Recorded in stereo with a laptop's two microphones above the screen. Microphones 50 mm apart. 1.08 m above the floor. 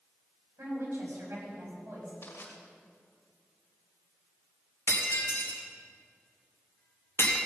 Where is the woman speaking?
70° right (ahead or behind), 6 m; by 2.1 s 60° right (ahead or behind), 6.5 m.